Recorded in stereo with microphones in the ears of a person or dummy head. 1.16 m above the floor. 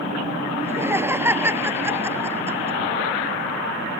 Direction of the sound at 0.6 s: 15° right (ahead or behind).